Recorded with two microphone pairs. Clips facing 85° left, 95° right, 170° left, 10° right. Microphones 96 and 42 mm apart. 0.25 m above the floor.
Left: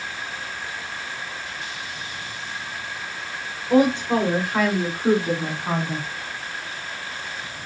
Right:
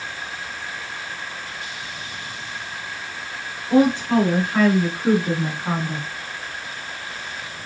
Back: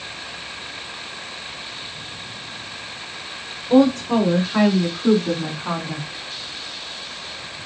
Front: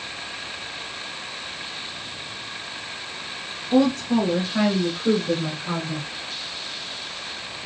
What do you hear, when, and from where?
3.7 s a woman speaking: 155° left, 3 m; by 6.1 s 175° left, 1.7 m